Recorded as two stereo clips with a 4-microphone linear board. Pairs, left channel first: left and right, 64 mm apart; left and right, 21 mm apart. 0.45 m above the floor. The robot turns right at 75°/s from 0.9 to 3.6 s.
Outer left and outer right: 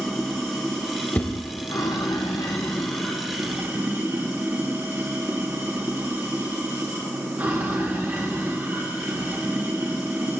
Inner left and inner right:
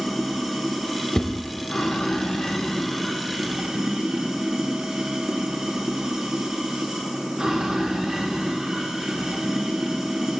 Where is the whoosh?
25° left (ahead or behind), 1.1 m; by 1.3 s 35° left (ahead or behind), 1.1 m.